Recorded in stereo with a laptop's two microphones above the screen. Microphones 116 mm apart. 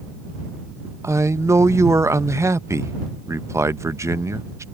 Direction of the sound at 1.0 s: 25° right (ahead or behind).